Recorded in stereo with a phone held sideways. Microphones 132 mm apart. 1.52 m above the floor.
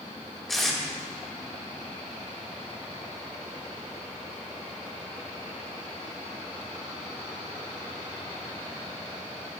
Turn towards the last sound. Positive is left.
turn(degrees=0)  # may be behind; listen again after turning